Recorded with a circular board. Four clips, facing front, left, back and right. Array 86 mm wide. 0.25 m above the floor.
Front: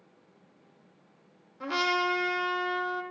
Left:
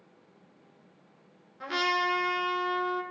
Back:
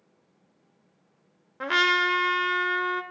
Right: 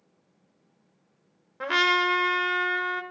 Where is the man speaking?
I don't hear a man speaking.